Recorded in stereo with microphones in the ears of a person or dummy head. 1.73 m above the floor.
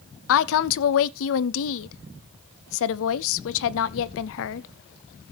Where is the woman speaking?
75° left (ahead or behind), 0.7 m.